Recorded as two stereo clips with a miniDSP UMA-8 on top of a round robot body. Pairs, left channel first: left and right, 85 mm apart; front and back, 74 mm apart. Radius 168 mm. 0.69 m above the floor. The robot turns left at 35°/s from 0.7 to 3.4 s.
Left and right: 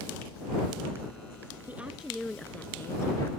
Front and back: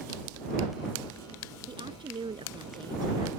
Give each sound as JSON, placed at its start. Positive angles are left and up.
{"t": 1.7, "sound": "a woman speaking", "azimuth_deg": -165}